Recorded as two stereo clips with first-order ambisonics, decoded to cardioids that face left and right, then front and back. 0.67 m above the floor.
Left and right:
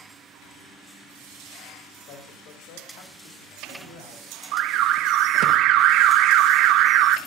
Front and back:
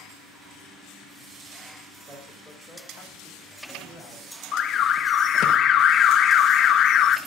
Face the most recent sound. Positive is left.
turn(degrees=-55)